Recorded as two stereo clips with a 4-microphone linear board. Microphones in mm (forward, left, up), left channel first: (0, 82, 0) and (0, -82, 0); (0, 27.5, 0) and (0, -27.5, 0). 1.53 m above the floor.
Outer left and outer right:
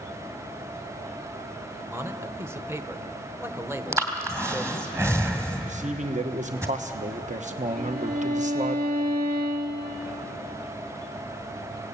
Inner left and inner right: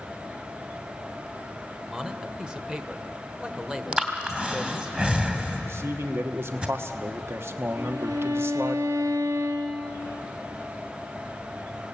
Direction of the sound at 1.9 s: 15° right (ahead or behind).